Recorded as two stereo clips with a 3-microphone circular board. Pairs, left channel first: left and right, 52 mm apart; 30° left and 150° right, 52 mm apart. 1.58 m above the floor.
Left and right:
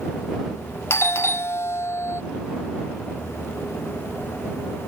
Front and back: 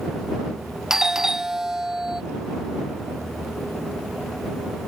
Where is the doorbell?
130° left.